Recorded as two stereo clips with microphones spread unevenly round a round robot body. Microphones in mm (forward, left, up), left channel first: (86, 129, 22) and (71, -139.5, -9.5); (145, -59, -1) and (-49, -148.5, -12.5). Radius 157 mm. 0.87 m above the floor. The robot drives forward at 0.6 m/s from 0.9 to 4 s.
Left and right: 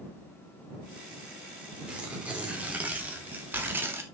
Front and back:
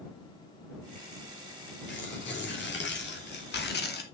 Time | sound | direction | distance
1.9 | tearing paper | 10° right | 3.5 m